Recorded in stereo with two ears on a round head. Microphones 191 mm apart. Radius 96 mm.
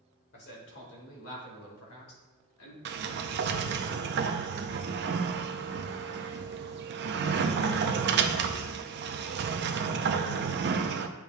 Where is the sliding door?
50° right (ahead or behind), 0.5 m.